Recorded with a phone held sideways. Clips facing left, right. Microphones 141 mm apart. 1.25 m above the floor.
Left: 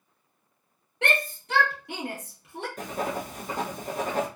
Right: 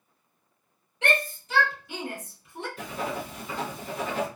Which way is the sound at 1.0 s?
60° left (ahead or behind).